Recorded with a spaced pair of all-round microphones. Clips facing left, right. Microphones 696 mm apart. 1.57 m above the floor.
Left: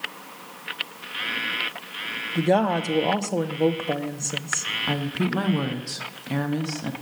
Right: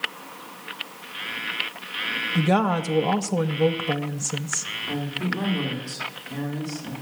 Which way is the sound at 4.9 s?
80° left.